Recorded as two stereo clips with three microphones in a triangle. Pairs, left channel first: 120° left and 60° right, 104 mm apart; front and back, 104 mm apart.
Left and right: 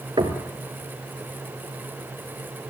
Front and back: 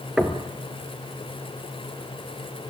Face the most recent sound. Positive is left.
turn(degrees=-95)